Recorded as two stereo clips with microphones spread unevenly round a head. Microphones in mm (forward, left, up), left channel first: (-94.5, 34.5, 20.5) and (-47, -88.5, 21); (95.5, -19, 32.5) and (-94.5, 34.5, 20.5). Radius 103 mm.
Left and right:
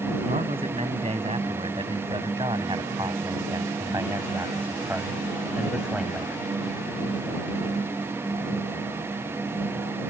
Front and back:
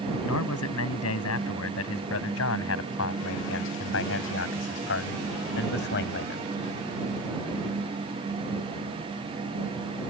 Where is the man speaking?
5° right; by 6.5 s 20° left.